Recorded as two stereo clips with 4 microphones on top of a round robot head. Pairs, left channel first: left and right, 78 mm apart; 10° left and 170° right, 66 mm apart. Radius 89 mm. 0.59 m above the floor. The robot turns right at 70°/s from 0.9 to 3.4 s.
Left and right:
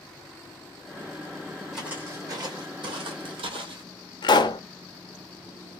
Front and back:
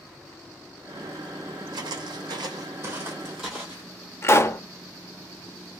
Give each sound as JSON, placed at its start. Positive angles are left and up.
{"t": 1.7, "sound": "footsteps", "azimuth_deg": -175, "distance_m": 2.0}
{"t": 4.2, "sound": "a pop", "azimuth_deg": 65, "distance_m": 0.7}